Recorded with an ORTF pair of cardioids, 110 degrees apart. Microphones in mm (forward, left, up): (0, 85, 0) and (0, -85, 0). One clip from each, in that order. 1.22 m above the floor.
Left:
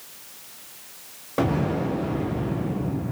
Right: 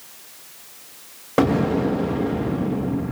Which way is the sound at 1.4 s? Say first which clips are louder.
Right 5 dB; 40° right.